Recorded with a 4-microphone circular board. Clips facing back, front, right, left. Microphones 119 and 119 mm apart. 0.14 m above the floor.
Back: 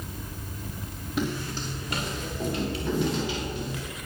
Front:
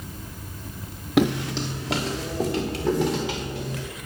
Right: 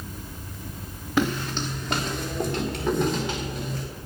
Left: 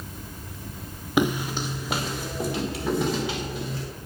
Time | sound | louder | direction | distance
1.2 | footsteps | front 9 dB, left 1 dB | 15° left | 0.7 m